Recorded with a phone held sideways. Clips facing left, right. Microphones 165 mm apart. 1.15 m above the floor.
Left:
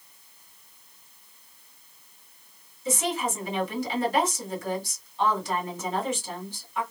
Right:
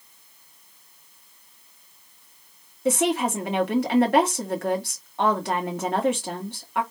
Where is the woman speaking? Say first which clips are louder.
Right 6 dB; 65° right (ahead or behind), 1.4 m.